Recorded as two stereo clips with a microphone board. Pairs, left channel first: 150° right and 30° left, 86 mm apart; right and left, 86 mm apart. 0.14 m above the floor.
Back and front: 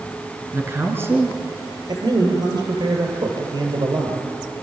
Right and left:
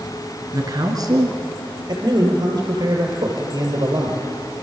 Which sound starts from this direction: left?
A man speaking, at 0.5 s.